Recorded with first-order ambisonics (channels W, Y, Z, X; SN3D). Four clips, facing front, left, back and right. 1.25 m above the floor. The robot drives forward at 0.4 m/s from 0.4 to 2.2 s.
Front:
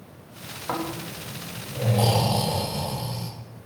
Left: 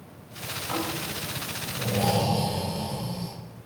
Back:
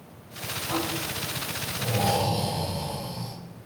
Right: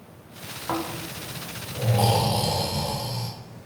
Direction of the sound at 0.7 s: 50° right.